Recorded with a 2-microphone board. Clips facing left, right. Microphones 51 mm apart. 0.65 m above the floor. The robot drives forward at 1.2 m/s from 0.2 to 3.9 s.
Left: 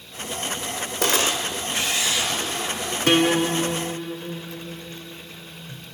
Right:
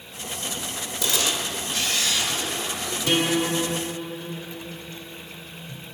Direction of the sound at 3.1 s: 55° left (ahead or behind).